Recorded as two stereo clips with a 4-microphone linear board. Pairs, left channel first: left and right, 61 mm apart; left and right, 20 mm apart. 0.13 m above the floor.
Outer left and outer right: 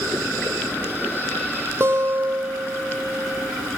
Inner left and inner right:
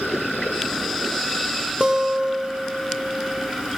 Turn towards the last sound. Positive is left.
turn(degrees=-40)  # may be behind; listen again after turning